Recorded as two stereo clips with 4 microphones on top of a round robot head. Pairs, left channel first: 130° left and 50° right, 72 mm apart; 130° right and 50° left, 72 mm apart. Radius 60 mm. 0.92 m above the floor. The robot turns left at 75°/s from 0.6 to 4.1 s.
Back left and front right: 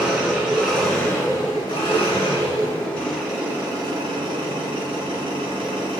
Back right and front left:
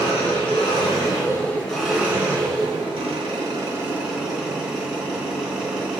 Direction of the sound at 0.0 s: 130° right.